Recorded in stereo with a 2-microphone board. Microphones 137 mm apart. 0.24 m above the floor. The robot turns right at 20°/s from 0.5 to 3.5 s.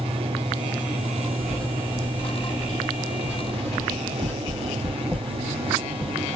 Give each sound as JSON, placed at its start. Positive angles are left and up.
{"t": 1.4, "sound": "writing", "side_deg": 5, "distance_m": 0.8}